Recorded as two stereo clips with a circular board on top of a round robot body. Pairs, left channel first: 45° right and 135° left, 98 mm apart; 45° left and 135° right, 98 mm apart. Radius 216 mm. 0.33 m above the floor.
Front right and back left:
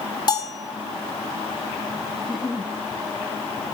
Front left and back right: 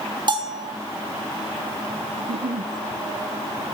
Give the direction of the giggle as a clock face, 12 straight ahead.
4 o'clock.